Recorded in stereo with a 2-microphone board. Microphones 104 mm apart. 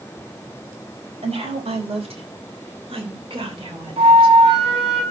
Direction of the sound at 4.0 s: 70° right (ahead or behind).